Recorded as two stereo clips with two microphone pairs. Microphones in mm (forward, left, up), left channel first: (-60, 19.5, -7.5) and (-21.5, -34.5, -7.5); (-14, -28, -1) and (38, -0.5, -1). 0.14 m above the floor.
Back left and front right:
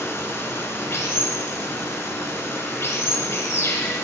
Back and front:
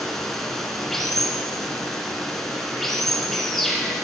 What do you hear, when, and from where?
0.0 s running water: 125° left, 1.7 m